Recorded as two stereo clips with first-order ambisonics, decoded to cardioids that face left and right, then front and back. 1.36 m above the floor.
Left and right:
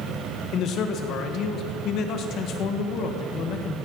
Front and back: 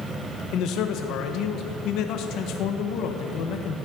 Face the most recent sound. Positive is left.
turn(degrees=40)